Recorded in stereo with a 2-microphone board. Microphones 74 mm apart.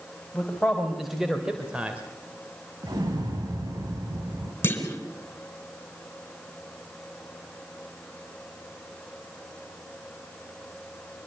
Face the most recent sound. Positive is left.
turn(degrees=25)  # may be behind; listen again after turning